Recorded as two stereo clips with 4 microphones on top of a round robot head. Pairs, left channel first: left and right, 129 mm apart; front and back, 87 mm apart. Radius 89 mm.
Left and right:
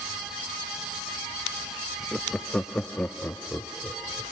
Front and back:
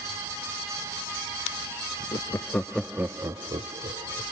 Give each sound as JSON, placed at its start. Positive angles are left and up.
{"t": 2.1, "sound": "laughter", "azimuth_deg": 5}